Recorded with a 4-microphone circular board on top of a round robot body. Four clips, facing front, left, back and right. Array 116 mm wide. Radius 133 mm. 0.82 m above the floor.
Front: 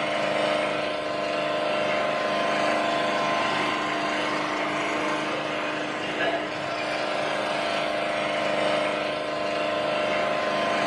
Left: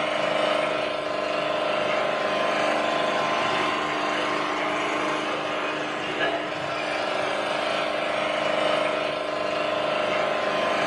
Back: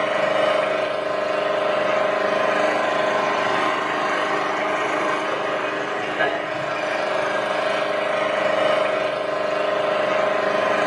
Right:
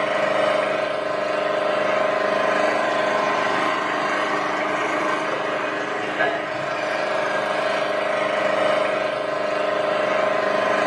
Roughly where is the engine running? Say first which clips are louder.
Right 4 dB, back 5 dB; behind right.